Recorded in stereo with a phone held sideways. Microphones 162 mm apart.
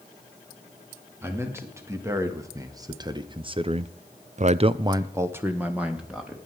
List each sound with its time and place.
1.2 s a man speaking: 15° right (ahead or behind), 3 m; by 6.4 s 5° right (ahead or behind), 1.9 m